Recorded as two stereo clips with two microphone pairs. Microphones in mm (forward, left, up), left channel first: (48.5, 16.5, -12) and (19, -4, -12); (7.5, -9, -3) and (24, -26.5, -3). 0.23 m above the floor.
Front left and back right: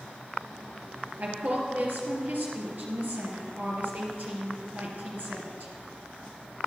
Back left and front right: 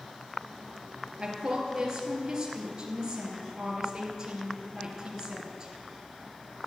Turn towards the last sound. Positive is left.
turn(degrees=-110)